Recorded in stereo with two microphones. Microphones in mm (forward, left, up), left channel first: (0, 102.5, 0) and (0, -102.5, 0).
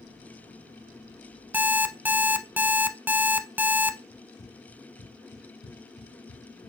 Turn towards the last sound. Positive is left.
turn(degrees=85)